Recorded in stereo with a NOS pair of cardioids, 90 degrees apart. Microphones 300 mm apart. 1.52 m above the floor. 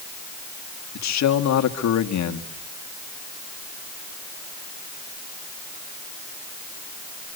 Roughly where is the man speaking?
Ahead left.